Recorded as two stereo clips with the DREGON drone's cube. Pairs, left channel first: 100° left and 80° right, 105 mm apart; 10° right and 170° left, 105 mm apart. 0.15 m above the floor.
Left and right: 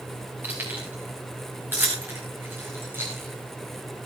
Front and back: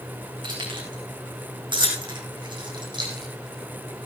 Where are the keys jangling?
150° right, 8 m; by 4.1 s 145° right, 4 m.